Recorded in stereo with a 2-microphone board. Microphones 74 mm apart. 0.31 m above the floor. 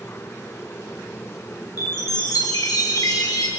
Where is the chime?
55° left (ahead or behind), 5 m.